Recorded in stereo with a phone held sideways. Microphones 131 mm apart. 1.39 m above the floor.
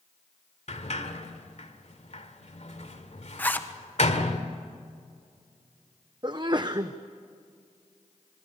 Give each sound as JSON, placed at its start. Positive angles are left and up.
{"t": 0.7, "sound": "a sliding door", "side_deg": 60, "distance_m": 1.7}
{"t": 3.4, "sound": "a zipper", "side_deg": 15, "distance_m": 1.2}
{"t": 6.2, "sound": "a sneeze", "side_deg": -35, "distance_m": 0.8}